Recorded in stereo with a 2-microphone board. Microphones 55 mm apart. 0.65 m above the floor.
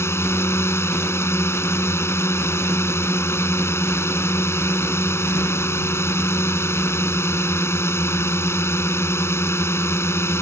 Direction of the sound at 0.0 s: 55° left (ahead or behind).